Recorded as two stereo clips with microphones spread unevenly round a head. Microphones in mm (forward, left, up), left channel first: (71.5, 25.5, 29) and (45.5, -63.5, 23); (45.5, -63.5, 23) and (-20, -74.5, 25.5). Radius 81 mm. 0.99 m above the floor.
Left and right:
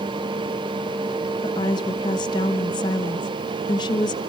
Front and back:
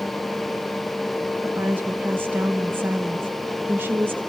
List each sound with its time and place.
1.4 s a woman speaking: 120° left, 1.2 m